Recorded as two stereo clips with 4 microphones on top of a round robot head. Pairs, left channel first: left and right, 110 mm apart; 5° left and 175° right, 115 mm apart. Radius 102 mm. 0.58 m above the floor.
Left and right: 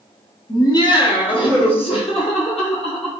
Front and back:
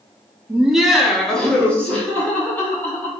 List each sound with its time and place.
0.5 s laughter: 115° left, 1.0 m; by 3.1 s 75° left, 2.5 m